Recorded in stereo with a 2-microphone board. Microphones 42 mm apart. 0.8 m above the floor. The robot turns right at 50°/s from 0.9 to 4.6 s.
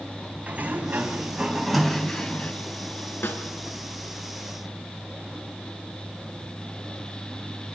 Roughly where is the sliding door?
Ahead right.